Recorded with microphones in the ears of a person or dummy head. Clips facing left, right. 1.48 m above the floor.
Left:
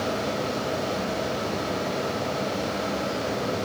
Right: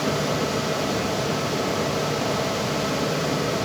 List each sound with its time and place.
0.0 s a fan: 80° right, 2.0 m